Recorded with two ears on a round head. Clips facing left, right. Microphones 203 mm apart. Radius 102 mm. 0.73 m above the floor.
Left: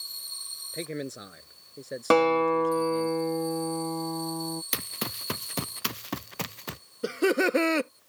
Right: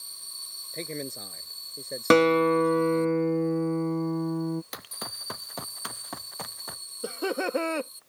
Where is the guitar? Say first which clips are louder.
Right 2 dB; 25° right (ahead or behind).